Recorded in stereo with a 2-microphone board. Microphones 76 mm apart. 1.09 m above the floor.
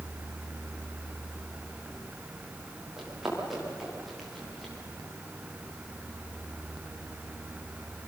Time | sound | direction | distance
3.0 | running footsteps | 5° right (ahead or behind) | 9.5 m